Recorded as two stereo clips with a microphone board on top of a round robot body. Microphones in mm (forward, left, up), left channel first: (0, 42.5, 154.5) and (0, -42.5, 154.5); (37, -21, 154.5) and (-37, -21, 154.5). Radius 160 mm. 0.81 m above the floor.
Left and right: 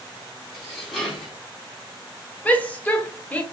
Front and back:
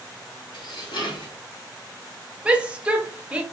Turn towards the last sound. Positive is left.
turn(degrees=130)